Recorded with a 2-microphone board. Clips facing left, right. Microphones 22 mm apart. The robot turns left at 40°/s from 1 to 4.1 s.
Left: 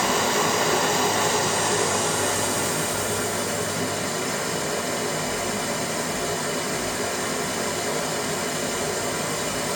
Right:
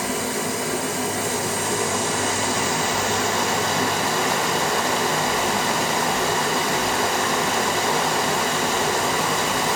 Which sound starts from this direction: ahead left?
Running water, at 0.0 s.